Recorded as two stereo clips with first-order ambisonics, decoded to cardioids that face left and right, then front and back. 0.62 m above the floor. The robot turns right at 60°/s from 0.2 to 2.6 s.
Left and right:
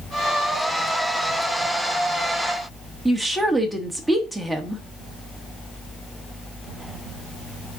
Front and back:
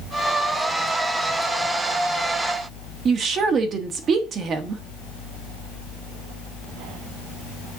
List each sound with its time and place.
3.0 s a woman speaking: 175° right, 1.1 m